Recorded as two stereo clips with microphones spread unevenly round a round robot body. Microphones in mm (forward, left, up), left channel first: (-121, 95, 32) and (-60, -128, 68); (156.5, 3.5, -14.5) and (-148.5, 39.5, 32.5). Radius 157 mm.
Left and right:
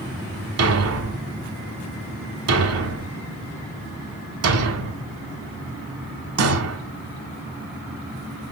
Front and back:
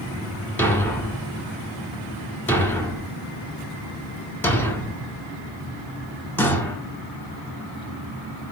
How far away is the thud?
About 1.5 m.